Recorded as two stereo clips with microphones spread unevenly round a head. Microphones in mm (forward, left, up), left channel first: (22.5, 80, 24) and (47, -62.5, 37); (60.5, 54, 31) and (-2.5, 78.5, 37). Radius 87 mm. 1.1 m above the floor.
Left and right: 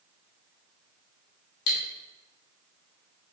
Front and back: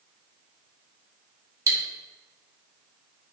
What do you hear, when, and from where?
1.7 s cutlery clinking: 125° left, 1.0 m